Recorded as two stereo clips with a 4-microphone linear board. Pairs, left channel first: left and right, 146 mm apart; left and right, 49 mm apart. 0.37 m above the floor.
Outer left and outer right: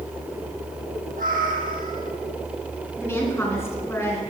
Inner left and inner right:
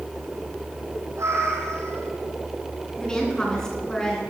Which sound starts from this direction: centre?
A woman speaking, at 3.0 s.